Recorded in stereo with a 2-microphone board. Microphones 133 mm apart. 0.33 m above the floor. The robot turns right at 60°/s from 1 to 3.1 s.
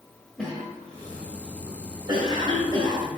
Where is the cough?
10° left (ahead or behind), 1.3 m; by 3.1 s 35° right (ahead or behind), 1.3 m.